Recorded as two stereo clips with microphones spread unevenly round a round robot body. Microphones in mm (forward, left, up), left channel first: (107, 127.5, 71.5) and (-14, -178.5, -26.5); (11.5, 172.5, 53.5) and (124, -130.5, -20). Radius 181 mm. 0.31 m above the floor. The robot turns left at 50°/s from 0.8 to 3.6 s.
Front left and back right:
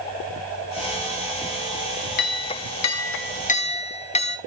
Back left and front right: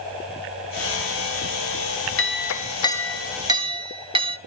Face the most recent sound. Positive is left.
turn(degrees=-10)